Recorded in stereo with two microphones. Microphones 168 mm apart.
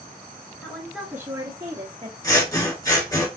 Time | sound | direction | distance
0.6 | a woman speaking | 10° left (ahead or behind) | 1.2 m
2.2 | scissors | 20° left (ahead or behind) | 1.6 m